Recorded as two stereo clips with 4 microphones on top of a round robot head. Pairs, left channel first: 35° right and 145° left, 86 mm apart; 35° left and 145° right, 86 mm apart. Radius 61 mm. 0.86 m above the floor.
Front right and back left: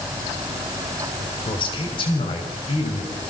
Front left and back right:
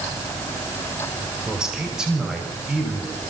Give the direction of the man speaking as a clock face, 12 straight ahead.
2 o'clock.